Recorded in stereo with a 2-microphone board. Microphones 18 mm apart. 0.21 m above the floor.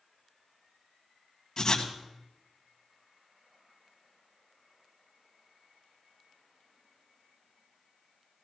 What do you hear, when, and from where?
1.6 s writing: 35° left (ahead or behind), 1.6 m